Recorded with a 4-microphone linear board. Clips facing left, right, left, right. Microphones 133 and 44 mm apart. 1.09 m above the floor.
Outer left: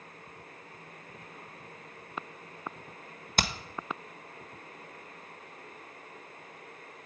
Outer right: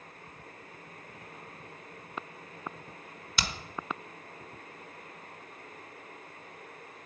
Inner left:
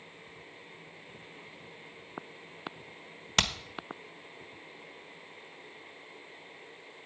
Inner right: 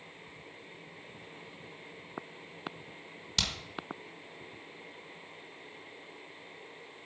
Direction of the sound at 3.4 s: 50° left (ahead or behind).